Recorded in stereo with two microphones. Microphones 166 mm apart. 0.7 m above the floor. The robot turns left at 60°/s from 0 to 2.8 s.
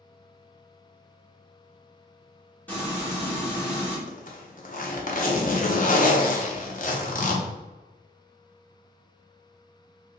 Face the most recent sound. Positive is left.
turn(degrees=55)  # may be behind; listen again after turning